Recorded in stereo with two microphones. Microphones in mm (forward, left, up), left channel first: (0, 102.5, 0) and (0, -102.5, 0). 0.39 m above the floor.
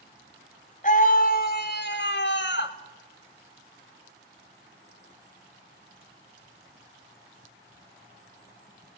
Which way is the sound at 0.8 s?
40° left (ahead or behind).